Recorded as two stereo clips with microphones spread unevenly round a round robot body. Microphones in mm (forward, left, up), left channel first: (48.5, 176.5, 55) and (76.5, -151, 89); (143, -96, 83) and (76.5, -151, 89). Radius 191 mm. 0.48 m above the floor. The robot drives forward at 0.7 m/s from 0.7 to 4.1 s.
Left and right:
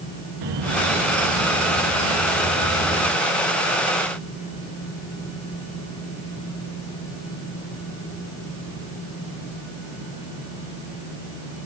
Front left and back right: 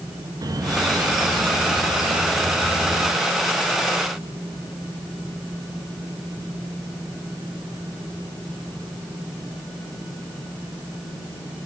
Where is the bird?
100° right, 1.7 m; by 3.1 s 140° right, 2.5 m.